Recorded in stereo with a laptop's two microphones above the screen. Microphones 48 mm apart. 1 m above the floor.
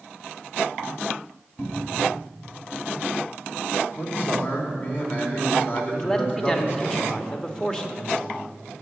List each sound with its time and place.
1.6 s a cupboard door: 55° left (ahead or behind), 2.5 m
4.0 s a man speaking: 45° left (ahead or behind), 3 m
5.9 s a man speaking: 15° left (ahead or behind), 1.4 m